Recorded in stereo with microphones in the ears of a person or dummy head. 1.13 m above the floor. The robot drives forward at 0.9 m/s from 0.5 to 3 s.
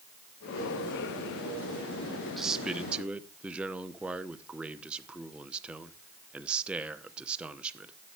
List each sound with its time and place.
2.4 s a man speaking: centre (ahead or behind), 1.3 m; by 7.9 s 5° right (ahead or behind), 0.8 m